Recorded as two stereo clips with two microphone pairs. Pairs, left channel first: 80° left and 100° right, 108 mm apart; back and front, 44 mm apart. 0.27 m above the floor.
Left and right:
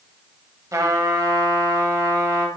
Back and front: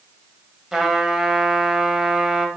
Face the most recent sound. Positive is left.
turn(degrees=-65)